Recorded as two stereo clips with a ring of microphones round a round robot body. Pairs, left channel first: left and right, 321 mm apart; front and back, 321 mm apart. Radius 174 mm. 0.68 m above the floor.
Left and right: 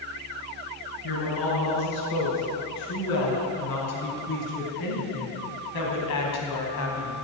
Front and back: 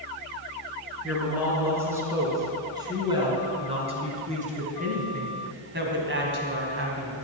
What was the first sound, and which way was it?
A woman speaking, 95° left.